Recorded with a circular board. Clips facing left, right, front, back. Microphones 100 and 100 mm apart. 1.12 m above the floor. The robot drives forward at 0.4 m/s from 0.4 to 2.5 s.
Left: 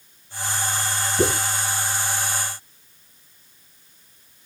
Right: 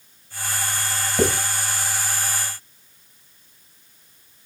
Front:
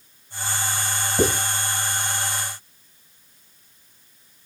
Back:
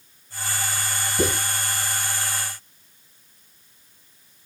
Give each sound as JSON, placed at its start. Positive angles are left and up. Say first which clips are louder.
{"t": 1.2, "sound": "writing", "louder": "right 1 dB, front 3 dB", "azimuth_deg": -55, "distance_m": 6.0}